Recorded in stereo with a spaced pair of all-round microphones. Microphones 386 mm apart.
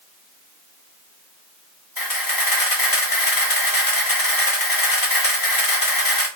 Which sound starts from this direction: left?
A camera shutter, at 2.0 s.